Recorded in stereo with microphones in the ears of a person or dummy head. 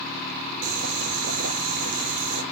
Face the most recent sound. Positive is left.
turn(degrees=-65)  # may be behind; listen again after turning